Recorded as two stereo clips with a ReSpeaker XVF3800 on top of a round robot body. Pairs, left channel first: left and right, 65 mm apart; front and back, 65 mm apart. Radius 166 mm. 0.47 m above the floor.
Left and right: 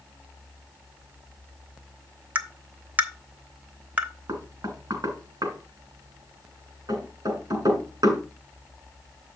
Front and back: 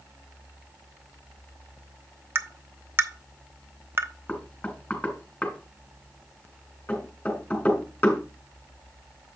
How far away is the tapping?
About 1.2 m.